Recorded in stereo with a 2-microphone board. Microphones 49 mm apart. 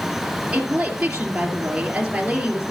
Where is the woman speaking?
25° right (ahead or behind), 2.5 m.